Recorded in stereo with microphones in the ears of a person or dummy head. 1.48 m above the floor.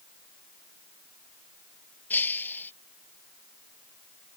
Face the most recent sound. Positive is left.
turn(degrees=15)  # may be behind; listen again after turning